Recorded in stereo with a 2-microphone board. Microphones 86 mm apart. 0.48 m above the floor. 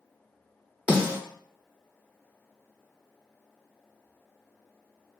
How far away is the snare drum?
About 1.4 m.